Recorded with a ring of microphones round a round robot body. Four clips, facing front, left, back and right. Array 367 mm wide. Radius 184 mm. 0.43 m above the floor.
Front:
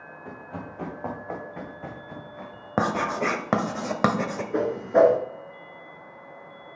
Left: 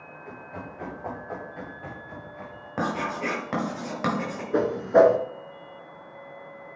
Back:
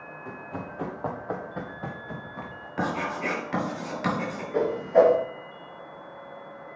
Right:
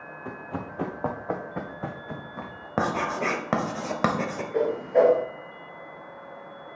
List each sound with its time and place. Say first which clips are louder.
0.2 s running footsteps: right 5 dB, back 1 dB; 85° right, 2 m; by 2.7 s 115° right, 2.5 m
2.8 s writing: right 2 dB, front 4 dB; 25° right, 1.2 m
4.5 s a whoosh: left 3 dB, even; 65° left, 1.4 m